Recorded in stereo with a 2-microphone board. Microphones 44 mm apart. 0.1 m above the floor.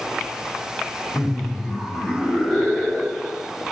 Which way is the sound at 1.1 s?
Centre (ahead or behind).